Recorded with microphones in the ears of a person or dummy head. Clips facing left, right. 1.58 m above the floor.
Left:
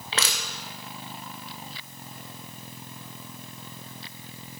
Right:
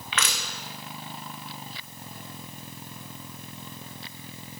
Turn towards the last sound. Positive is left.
turn(degrees=30)  # may be behind; listen again after turning